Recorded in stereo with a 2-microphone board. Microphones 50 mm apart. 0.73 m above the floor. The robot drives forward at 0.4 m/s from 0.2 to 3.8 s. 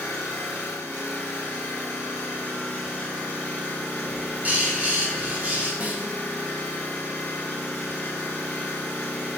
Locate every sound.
0.0 s an engine running: 70° left (ahead or behind), 1.1 m; by 9.4 s 30° left (ahead or behind), 2 m
4.0 s a bird: 35° right (ahead or behind), 1.2 m
5.8 s a snare drum: 30° right (ahead or behind), 0.7 m